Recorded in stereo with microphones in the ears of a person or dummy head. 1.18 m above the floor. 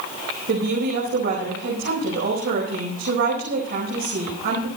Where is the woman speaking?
55° right (ahead or behind), 4.5 m.